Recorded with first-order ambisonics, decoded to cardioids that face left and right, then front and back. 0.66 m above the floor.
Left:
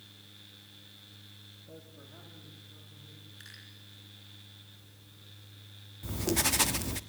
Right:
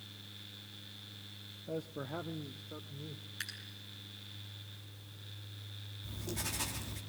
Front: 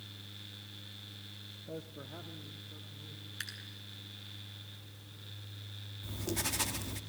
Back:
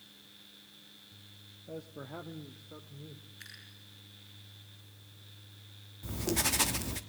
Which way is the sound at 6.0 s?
115° left.